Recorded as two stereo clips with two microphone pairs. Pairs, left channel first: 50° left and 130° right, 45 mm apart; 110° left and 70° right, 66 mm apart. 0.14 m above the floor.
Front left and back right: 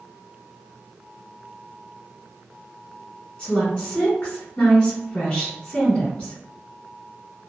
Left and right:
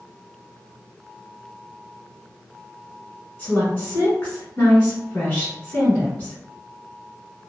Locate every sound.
3.4 s a woman speaking: 80° left, 1.2 m